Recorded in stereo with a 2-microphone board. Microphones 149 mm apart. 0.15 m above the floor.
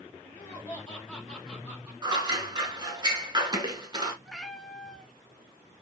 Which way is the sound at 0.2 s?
20° left (ahead or behind).